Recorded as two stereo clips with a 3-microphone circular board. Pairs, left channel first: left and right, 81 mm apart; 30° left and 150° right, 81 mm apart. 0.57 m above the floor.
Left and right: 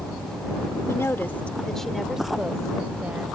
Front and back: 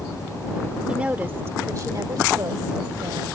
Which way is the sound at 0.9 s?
135° left.